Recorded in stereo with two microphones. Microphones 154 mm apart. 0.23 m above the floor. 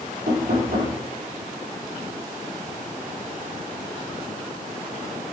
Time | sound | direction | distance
0.3 | knocking | 80° right | 5 m